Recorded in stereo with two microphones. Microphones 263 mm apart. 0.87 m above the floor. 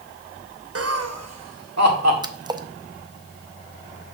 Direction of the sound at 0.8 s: 60° right (ahead or behind).